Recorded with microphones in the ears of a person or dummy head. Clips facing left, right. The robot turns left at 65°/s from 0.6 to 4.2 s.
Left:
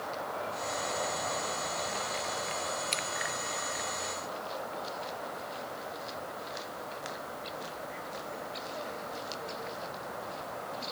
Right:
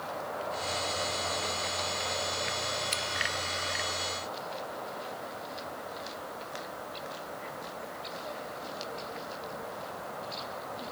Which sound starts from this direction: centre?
Scissors, at 2.9 s.